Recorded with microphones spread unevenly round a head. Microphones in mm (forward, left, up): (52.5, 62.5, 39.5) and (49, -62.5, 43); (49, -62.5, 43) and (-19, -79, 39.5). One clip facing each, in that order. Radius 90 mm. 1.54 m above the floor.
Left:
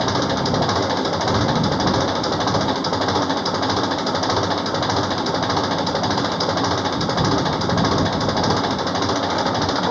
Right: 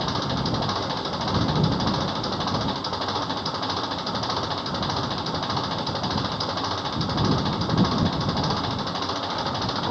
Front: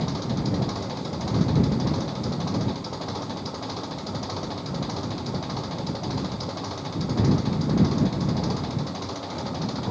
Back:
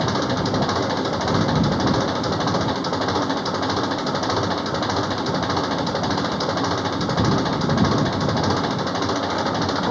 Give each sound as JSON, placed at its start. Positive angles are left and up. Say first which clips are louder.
{"t": 0.0, "sound": "an engine running", "louder": "left 7 dB, back 7 dB", "azimuth_deg": 145}